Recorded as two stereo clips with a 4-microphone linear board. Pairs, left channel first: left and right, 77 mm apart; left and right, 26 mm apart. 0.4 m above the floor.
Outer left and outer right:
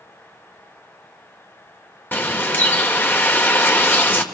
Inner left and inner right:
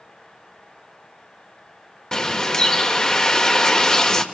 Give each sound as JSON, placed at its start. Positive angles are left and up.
{"t": 2.1, "sound": "a bird", "side_deg": 30, "distance_m": 1.6}